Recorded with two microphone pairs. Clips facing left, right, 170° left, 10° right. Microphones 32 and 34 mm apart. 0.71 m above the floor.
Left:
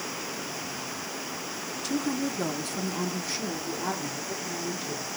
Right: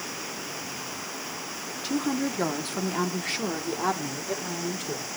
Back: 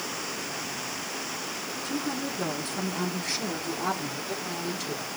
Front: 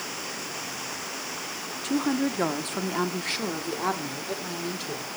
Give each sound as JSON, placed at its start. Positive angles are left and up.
{"t": 1.8, "sound": "a woman speaking", "azimuth_deg": -15, "distance_m": 1.6}